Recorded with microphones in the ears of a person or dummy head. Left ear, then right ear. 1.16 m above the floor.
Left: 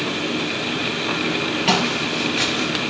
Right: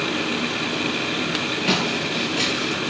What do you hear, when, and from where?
1.7 s footsteps: 25° left (ahead or behind), 1.6 m; by 2.7 s 15° right (ahead or behind), 1.6 m